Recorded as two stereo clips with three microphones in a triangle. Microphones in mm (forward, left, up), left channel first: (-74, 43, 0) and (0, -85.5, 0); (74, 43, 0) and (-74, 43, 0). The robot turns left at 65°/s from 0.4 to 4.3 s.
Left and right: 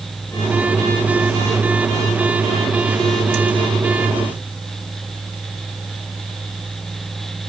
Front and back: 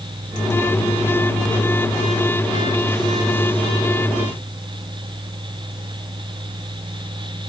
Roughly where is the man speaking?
No man speaking in this recording.